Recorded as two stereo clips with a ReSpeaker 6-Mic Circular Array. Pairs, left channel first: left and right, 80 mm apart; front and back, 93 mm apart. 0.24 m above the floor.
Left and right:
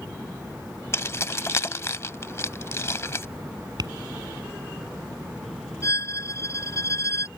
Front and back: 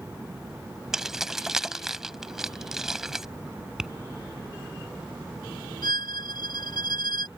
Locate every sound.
0.9 s keys jangling: 100° left
3.8 s tapping: 95° right
5.8 s a violin: 40° left